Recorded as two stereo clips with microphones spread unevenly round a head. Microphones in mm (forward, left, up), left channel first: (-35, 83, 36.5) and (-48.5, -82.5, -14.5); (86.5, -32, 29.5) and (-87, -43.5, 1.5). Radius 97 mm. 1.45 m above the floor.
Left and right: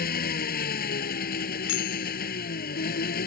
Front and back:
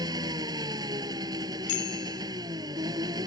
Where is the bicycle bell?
55° left.